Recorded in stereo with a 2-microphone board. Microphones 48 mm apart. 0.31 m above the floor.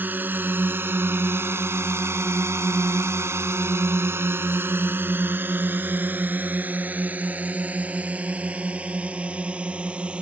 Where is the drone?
40° right (ahead or behind); by 10.2 s 25° right (ahead or behind).